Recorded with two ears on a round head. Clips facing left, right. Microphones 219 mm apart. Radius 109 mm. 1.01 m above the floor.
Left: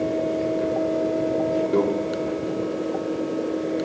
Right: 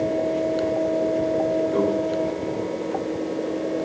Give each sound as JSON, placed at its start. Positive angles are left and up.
{"t": 1.7, "sound": "a microwave", "side_deg": 65, "distance_m": 2.0}